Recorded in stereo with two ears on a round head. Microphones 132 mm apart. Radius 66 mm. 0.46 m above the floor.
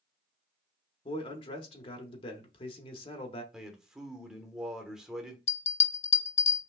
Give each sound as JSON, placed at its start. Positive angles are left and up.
{"t": 1.1, "sound": "a man speaking", "side_deg": 35, "distance_m": 1.0}
{"t": 3.5, "sound": "a man speaking", "side_deg": -5, "distance_m": 1.0}
{"t": 5.5, "sound": "a bell", "side_deg": 45, "distance_m": 0.6}